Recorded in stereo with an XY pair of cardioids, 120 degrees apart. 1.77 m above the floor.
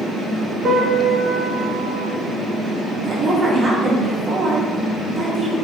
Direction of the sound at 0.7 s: 45° right.